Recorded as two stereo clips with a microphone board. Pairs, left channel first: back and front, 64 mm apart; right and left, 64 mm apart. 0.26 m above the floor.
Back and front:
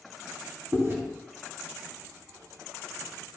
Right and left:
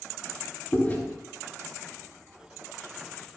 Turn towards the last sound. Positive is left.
turn(degrees=-40)